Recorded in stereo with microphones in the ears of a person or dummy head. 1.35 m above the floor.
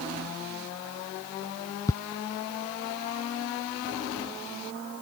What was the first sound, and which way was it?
Ticking, 15° left (ahead or behind).